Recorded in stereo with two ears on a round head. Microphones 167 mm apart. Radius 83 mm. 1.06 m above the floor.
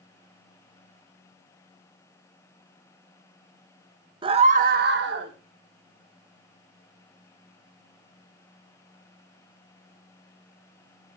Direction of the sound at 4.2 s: 30° right (ahead or behind).